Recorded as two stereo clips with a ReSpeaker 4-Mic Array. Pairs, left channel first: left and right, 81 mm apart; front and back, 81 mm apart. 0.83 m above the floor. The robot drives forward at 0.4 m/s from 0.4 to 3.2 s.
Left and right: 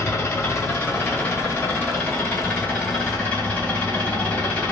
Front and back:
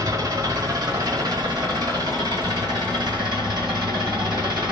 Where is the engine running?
145° left, 1.1 m; by 4.7 s 160° left, 2 m.